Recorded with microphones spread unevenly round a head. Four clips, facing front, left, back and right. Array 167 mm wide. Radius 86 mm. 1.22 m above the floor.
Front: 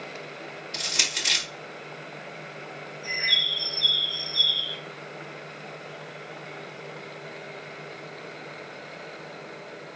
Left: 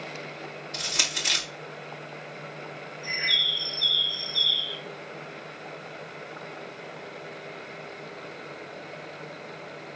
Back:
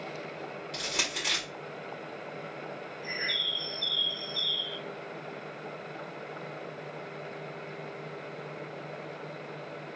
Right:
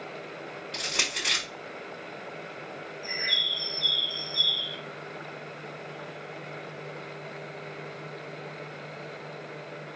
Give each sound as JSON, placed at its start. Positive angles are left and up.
{"t": 0.7, "sound": "crushing", "azimuth_deg": -135, "distance_m": 2.5}
{"t": 3.0, "sound": "a bird", "azimuth_deg": 180, "distance_m": 0.9}